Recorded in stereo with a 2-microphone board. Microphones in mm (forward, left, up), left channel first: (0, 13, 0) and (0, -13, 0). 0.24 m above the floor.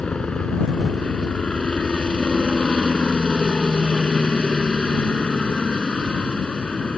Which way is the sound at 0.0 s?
40° left (ahead or behind).